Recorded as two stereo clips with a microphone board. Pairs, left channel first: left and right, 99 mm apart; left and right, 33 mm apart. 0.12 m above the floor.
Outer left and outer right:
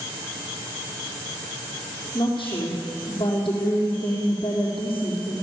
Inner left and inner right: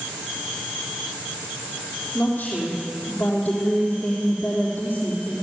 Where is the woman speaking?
45° left (ahead or behind), 5.5 m.